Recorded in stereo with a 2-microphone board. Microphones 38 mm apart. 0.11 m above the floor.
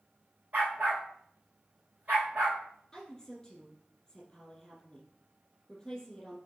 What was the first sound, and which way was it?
A dog barking, 40° right (ahead or behind).